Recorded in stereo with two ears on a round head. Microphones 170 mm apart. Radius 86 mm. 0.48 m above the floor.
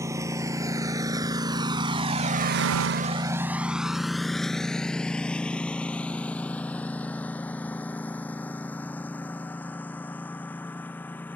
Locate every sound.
0.0 s a lawn mower: 15° right (ahead or behind); by 11.4 s 10° left (ahead or behind)